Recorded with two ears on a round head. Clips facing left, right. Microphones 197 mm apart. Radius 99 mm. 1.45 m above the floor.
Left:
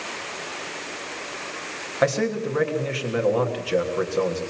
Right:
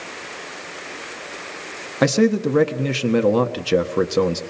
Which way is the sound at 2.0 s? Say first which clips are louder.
Right 6 dB; 55° right (ahead or behind).